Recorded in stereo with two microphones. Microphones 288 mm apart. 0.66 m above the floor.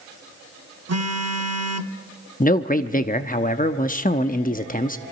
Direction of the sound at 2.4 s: 30° left (ahead or behind).